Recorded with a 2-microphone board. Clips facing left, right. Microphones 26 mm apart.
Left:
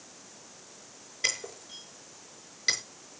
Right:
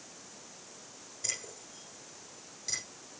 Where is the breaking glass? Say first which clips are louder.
Left 9 dB; 65° left (ahead or behind), 5 m.